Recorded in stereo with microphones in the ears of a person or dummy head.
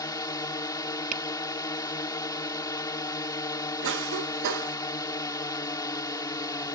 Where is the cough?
65° right (ahead or behind).